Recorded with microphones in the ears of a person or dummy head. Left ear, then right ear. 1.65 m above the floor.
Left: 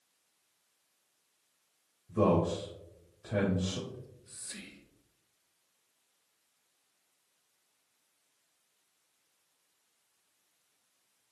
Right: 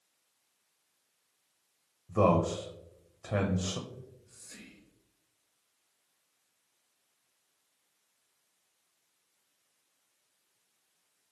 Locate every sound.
2.1 s a man speaking: 40° right (ahead or behind), 0.6 m
3.9 s whispering: 60° left (ahead or behind), 0.8 m